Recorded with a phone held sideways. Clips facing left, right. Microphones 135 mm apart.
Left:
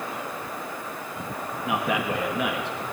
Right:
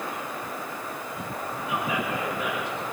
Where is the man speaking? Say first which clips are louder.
Left 3 dB; 70° left (ahead or behind), 1.8 m.